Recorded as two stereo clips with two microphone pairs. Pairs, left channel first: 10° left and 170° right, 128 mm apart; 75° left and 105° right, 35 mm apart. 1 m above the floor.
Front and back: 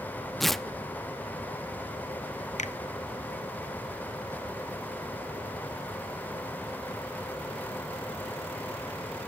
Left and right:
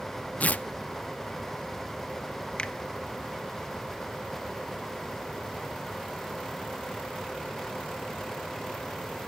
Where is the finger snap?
20° left, 0.8 m.